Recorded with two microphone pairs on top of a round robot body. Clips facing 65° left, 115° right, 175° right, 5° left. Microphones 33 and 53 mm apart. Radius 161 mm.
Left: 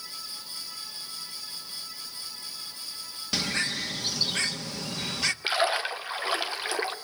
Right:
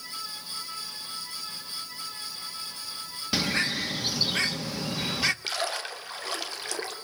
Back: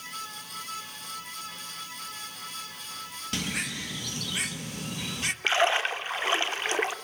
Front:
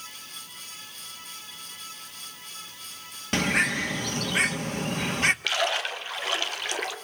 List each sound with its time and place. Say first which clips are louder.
3.3 s a bird: right 2 dB, front 9 dB; 40° right, 1.6 m
5.4 s a splash: left 5 dB, back 3 dB; 125° left, 3 m